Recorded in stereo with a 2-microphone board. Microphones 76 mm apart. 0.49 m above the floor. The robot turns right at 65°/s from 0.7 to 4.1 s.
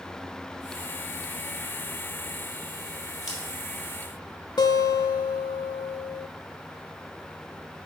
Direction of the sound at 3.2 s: Centre (ahead or behind).